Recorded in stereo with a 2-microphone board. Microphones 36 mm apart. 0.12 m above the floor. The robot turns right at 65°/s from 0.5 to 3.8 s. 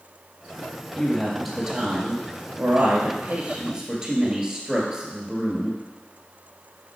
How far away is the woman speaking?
About 1.7 m.